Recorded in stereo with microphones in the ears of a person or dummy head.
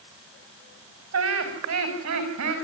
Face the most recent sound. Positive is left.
turn(degrees=-65)  # may be behind; listen again after turning